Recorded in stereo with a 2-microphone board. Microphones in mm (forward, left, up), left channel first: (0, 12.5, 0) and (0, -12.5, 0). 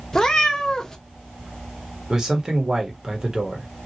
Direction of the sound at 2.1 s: 25° right (ahead or behind).